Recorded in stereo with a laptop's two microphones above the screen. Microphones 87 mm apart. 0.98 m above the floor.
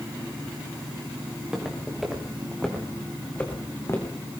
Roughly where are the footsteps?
Centre.